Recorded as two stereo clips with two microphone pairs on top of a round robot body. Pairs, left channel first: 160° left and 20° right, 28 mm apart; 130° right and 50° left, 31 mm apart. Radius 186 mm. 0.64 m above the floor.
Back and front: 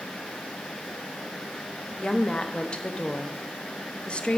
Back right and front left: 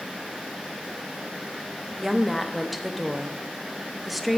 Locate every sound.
2.0 s a woman speaking: 135° left, 1.2 m